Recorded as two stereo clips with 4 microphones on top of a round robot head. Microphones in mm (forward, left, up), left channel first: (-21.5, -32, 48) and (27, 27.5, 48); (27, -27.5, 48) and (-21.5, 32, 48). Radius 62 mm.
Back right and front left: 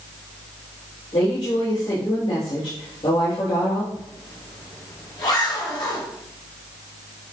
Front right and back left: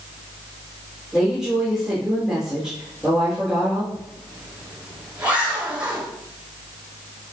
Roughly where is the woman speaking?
Behind right.